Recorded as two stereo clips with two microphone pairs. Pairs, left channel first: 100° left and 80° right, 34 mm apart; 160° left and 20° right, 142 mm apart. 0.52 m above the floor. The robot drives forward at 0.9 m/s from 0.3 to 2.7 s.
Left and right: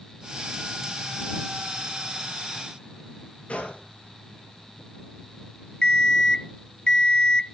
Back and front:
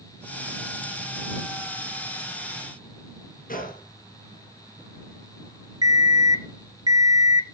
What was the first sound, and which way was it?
A gunshot, 150° left.